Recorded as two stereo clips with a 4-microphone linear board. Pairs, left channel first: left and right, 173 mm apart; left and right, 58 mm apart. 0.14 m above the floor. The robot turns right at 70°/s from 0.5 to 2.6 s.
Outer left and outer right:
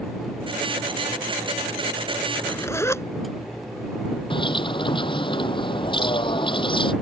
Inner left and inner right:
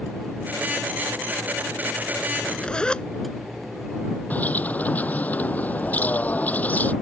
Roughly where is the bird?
Left.